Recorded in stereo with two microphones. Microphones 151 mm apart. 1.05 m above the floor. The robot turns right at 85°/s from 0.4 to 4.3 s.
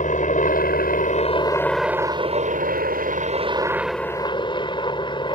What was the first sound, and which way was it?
A helicopter, 60° left.